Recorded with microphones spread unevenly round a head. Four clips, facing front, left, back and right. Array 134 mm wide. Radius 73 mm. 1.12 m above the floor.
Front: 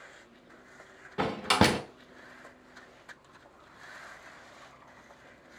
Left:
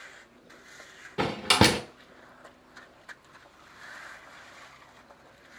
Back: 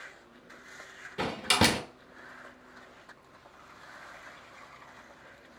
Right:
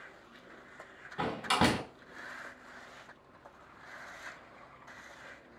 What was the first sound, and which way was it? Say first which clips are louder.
A door slam: left 5 dB, front 2 dB; 65° left.